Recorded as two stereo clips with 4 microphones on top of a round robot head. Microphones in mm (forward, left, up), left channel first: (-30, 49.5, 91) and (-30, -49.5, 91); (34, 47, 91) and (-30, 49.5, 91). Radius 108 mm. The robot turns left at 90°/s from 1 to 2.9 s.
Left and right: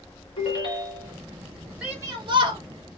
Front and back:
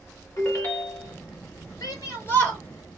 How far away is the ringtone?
About 1.8 m.